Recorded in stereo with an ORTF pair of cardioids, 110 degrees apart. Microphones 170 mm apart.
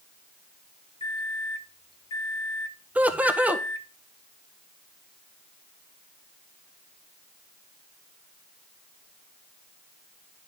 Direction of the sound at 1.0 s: 30° left.